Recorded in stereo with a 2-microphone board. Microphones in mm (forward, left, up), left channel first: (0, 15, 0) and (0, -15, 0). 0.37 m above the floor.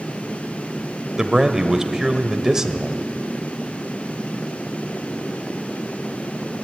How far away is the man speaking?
About 1.4 m.